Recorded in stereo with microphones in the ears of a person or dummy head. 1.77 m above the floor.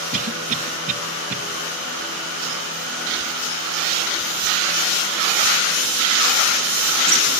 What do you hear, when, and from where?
0.1 s a cough: 40° right (ahead or behind), 1.8 m